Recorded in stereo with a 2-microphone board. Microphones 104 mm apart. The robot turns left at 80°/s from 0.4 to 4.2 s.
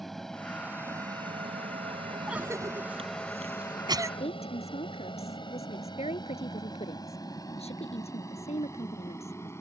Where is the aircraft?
Centre (ahead or behind); by 9.6 s 25° left (ahead or behind).